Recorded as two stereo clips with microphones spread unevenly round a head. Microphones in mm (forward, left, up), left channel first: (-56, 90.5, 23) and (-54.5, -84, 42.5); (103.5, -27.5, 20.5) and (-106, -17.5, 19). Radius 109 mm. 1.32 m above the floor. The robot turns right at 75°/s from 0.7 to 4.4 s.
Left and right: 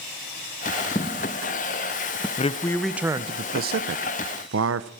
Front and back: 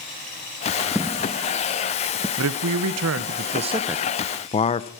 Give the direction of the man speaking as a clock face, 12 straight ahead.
7 o'clock.